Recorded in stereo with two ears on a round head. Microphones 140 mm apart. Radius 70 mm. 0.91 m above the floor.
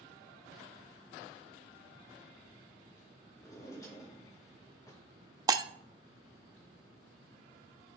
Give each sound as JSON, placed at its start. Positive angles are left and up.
{"t": 3.4, "sound": "a drawer", "side_deg": 20, "distance_m": 3.5}
{"t": 5.5, "sound": "breaking glass", "side_deg": -25, "distance_m": 0.5}